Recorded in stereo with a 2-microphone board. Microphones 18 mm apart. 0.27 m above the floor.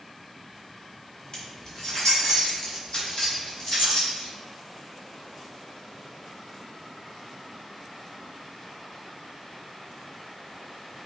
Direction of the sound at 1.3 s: 30° left (ahead or behind).